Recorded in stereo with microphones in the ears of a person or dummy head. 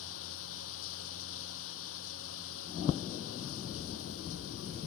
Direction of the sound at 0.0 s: 75° left (ahead or behind).